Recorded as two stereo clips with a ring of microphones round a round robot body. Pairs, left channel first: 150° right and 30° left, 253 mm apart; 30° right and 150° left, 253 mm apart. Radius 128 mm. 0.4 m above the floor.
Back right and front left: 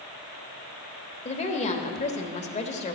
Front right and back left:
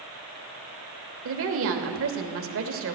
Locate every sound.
1.2 s a woman speaking: 155° left, 1.2 m